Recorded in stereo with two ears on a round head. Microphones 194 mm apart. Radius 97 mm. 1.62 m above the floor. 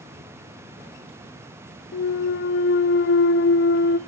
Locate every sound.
1.9 s a clunk: 50° left (ahead or behind), 0.6 m